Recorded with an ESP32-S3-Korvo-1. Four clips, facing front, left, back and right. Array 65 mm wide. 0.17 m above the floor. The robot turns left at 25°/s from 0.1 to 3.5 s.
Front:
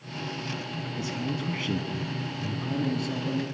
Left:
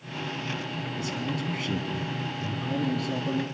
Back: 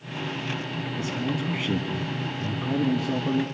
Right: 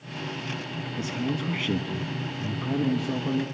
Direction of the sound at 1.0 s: 90° right.